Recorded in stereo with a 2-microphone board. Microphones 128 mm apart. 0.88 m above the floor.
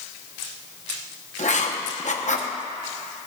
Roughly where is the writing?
Left.